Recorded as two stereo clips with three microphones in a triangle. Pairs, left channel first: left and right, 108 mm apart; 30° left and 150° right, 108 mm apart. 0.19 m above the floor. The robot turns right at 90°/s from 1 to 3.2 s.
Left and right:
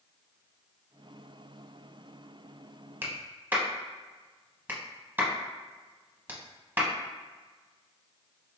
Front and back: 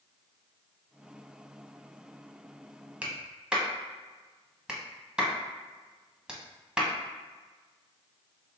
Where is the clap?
100° right, 0.8 m; by 6.9 s 85° right, 0.8 m.